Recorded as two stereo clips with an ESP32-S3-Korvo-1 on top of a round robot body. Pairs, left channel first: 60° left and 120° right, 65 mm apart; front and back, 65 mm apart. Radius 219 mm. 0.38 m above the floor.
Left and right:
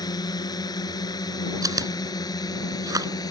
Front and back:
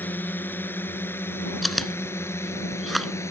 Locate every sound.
0.0 s a drone: 60° left; by 3.3 s 45° left
1.6 s chewing: 90° right